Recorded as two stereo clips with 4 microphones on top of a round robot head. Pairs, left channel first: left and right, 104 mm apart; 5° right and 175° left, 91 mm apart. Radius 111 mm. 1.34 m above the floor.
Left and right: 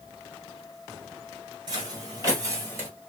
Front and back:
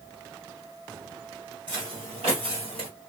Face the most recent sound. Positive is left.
turn(degrees=-155)